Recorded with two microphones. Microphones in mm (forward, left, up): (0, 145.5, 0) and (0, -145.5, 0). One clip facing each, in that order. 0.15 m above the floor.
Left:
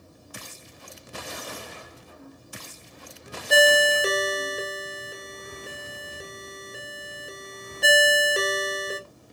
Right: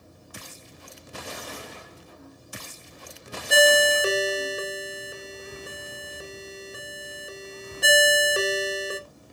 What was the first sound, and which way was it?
A ringtone, 5° right (ahead or behind).